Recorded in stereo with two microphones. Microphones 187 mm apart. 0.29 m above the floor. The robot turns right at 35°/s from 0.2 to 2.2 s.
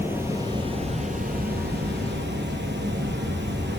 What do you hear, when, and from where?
0.0 s running water: 165° right, 0.8 m; by 3.8 s 95° right, 0.8 m